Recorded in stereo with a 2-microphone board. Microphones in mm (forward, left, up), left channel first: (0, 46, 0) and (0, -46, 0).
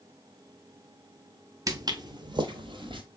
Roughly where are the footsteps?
Right.